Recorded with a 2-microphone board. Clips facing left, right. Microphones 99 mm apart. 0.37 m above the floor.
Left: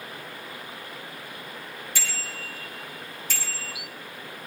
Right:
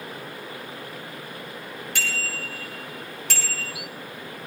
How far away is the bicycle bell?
About 3.5 m.